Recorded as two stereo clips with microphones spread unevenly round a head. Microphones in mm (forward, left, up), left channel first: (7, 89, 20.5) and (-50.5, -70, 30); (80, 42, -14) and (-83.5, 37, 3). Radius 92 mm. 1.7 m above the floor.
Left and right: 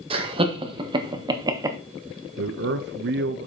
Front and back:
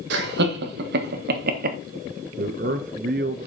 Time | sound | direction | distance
0.1 | laughter | 165° right | 1.8 m
2.4 | a man speaking | 135° right | 0.6 m